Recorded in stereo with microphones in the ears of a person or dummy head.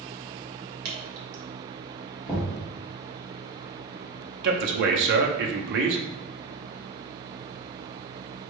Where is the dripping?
65° right (ahead or behind), 0.9 m.